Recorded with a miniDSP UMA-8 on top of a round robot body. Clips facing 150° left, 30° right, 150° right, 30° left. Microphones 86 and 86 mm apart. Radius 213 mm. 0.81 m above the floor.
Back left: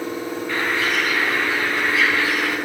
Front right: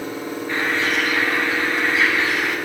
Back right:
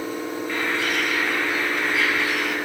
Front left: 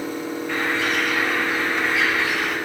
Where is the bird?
25° left, 3.5 m.